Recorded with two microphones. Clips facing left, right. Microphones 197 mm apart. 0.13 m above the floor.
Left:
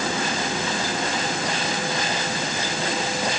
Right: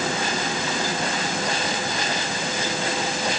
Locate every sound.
Only background noise.